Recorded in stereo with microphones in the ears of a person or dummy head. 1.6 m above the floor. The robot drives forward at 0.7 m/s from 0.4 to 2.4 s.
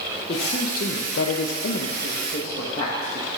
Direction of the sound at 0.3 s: 40° left (ahead or behind).